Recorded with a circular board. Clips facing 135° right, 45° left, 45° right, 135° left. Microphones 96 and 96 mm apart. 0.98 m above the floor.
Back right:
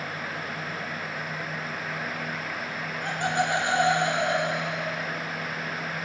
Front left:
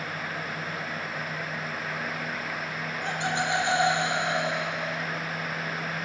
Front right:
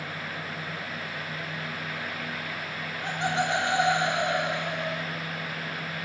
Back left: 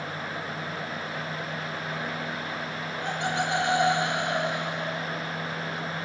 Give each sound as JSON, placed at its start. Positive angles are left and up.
{"t": 3.0, "sound": "laughter", "azimuth_deg": -100, "distance_m": 5.5}